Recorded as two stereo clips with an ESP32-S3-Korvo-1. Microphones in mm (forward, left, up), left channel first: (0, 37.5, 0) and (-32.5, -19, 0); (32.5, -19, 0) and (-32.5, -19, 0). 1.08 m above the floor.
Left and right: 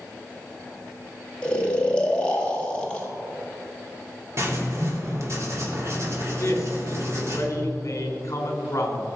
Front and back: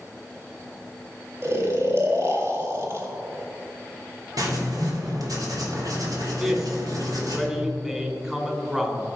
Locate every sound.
1.4 s snoring: 130° left, 2 m
4.4 s writing: 165° right, 3 m
6.4 s a man speaking: 105° left, 3 m